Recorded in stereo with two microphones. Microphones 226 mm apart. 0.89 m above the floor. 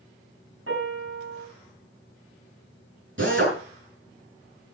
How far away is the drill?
About 8 m.